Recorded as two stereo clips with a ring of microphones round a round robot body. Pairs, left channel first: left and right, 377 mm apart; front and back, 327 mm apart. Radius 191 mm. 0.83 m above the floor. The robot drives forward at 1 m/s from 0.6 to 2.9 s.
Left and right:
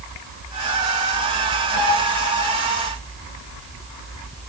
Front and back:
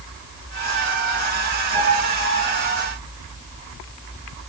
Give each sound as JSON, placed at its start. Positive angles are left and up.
{"t": 1.7, "sound": "a piano", "azimuth_deg": 125, "distance_m": 9.5}